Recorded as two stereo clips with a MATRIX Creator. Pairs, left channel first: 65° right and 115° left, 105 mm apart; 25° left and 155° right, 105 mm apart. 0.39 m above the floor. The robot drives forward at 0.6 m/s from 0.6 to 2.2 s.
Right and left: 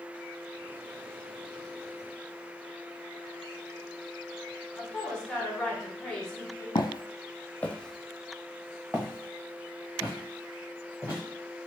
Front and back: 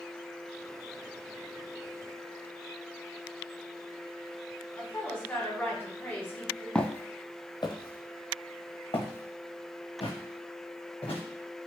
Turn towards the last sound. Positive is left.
turn(degrees=45)